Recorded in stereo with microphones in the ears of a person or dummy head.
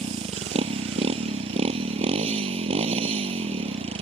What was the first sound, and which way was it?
A motorcycle, 35° right (ahead or behind).